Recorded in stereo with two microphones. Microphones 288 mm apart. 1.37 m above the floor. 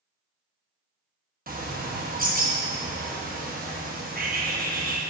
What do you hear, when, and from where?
1.5 s a bird: 30° right (ahead or behind), 1.1 m